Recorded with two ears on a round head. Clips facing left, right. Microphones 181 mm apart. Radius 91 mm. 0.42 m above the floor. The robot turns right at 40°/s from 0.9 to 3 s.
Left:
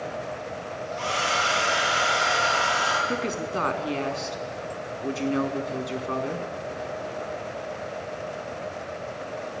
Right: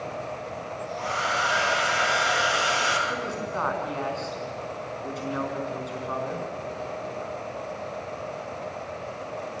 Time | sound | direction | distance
1.0 | a hair dryer | 135° left | 7 m
3.1 | a woman speaking | 35° left (ahead or behind) | 5 m